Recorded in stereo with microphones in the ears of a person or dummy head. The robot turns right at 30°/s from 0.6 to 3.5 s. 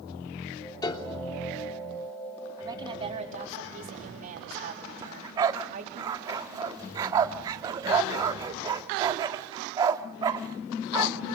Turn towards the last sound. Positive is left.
turn(degrees=-20)  # may be behind; listen again after turning